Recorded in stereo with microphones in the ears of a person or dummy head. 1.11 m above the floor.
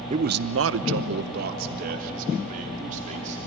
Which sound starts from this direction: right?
A man speaking, at 0.1 s.